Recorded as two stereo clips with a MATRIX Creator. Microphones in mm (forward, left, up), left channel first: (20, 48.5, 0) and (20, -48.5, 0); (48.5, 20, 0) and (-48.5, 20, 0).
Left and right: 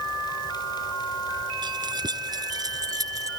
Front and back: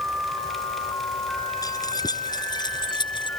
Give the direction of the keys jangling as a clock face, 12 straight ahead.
2 o'clock.